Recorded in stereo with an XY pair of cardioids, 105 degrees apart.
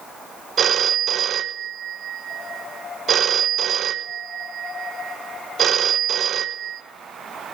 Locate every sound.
0.6 s a phone ringing: 55° right, 0.6 m